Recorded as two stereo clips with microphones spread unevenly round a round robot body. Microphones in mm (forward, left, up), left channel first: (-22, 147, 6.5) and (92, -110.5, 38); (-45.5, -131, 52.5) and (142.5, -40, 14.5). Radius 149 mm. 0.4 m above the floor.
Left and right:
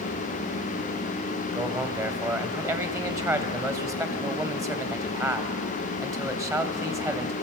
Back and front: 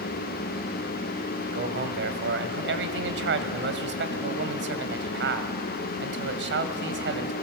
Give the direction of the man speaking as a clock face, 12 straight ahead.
11 o'clock.